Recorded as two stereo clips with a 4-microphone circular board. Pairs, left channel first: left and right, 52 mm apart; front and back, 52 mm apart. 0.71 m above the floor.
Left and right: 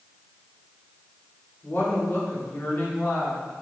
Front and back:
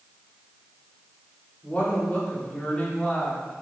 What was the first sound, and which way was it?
A woman speaking, 55° left.